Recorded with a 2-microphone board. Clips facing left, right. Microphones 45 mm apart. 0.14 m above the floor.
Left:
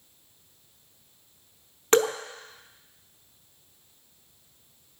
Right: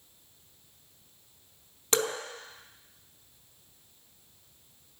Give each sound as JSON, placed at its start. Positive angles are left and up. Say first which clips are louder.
{"t": 1.9, "sound": "dripping", "louder": "left 8 dB", "side_deg": 40, "distance_m": 0.8}